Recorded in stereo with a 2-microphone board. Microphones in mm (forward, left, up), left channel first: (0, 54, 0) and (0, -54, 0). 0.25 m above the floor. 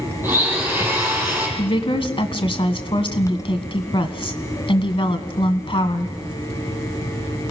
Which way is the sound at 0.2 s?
20° right (ahead or behind).